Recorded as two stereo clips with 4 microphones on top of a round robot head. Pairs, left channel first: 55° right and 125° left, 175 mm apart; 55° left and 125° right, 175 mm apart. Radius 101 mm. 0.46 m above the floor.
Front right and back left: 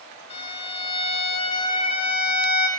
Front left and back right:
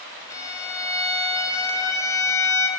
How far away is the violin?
About 1.6 m.